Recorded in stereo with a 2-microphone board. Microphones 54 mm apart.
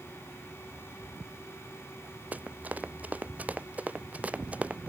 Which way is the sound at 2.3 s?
30° right (ahead or behind).